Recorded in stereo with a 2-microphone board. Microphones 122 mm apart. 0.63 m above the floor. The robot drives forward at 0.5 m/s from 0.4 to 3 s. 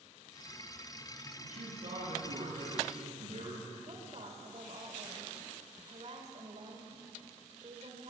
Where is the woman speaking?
50° right (ahead or behind), 2 m.